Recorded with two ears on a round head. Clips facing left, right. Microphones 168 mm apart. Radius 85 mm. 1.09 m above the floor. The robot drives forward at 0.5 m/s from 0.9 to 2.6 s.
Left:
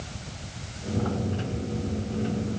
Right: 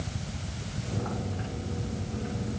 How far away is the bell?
I don't hear a bell.